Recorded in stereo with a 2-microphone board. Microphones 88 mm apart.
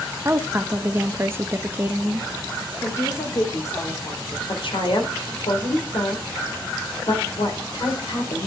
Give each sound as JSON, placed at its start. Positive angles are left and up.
{"t": 0.2, "sound": "a woman speaking", "side_deg": -30, "distance_m": 0.5}
{"t": 2.8, "sound": "a woman speaking", "side_deg": 35, "distance_m": 1.6}
{"t": 4.5, "sound": "a woman speaking", "side_deg": 75, "distance_m": 2.5}